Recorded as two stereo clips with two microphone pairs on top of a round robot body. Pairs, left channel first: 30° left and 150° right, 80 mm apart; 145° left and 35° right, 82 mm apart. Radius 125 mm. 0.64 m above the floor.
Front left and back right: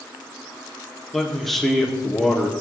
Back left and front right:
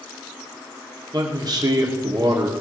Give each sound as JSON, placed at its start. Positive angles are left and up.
{"t": 1.1, "sound": "a man speaking", "azimuth_deg": -55, "distance_m": 1.9}